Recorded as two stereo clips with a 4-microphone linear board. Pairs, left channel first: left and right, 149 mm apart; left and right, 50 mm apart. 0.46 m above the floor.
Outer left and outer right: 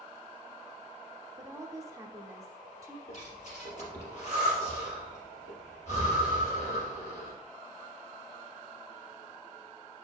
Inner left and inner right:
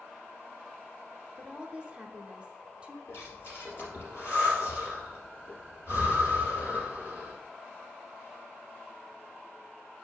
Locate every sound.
1.4 s a woman speaking: 20° right (ahead or behind), 0.9 m
3.1 s breathing: 55° left (ahead or behind), 3 m